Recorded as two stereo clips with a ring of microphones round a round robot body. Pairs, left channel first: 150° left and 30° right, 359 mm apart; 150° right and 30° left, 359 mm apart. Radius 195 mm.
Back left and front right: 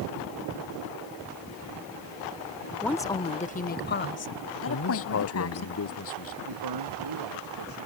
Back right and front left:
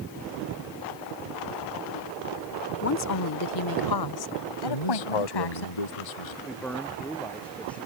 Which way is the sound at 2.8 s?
125° right.